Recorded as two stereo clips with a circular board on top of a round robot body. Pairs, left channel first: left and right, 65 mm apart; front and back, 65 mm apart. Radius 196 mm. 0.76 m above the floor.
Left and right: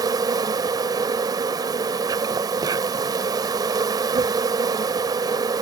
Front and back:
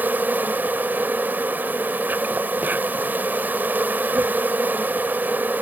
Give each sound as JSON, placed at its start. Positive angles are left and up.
{"t": 0.0, "sound": "an insect", "azimuth_deg": -115}